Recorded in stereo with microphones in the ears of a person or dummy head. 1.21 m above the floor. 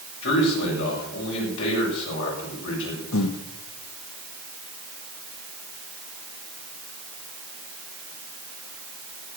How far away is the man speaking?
About 8 m.